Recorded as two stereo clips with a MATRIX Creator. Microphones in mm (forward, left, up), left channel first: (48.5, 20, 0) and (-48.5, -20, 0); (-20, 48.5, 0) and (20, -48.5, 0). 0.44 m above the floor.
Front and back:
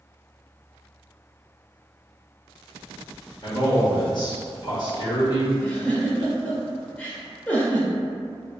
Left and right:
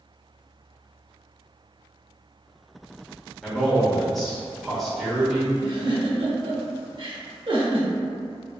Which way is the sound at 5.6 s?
50° right.